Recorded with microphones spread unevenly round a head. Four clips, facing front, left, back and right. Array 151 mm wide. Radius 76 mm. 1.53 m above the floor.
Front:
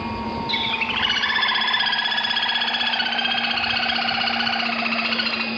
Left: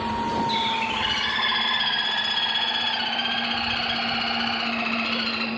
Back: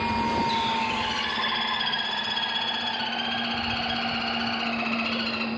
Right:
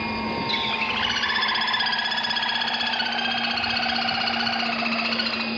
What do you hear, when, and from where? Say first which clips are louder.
0.5 s a bird: left 3 dB, back 1 dB; 40° right, 1.0 m